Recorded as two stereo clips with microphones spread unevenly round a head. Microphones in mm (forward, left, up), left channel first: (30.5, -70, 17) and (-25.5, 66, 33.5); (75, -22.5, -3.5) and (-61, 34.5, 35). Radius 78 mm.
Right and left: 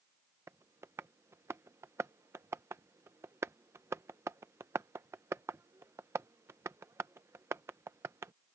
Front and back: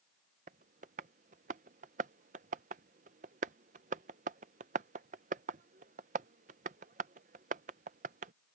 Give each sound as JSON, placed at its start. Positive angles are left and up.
{"t": 0.5, "sound": "tapping", "azimuth_deg": 180}